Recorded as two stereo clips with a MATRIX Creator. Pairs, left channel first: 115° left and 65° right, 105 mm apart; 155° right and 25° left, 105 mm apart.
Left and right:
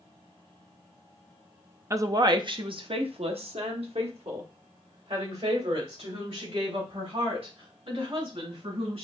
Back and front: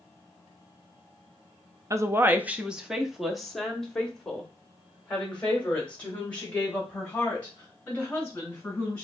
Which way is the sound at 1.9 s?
20° right.